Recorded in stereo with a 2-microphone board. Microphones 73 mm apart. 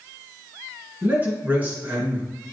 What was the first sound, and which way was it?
A man speaking, 25° right (ahead or behind).